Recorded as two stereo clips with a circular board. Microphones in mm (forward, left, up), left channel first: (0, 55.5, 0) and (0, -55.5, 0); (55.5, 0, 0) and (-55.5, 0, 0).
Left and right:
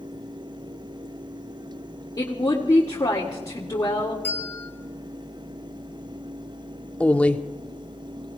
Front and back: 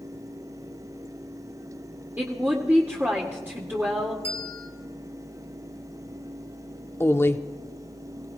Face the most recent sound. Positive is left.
turn(degrees=30)